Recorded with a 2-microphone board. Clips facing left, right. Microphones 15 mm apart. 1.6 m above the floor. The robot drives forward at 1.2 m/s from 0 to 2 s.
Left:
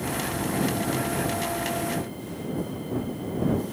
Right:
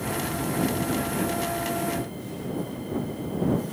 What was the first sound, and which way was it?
Only background noise.